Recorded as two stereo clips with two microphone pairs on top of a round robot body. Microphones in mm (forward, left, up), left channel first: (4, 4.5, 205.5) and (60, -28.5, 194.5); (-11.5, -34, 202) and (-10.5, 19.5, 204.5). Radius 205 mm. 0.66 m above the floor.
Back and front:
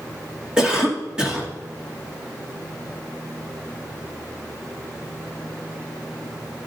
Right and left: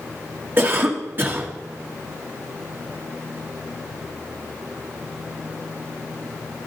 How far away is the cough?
About 2.5 m.